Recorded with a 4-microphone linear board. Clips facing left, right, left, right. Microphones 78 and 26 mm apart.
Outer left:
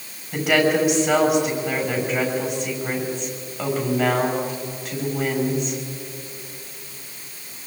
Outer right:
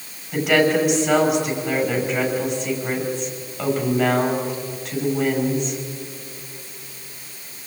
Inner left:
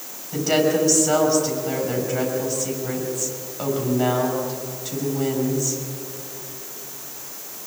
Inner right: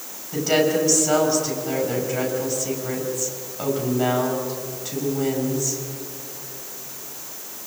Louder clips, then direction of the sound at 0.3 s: Outer right 1 dB, even; 5° left (ahead or behind).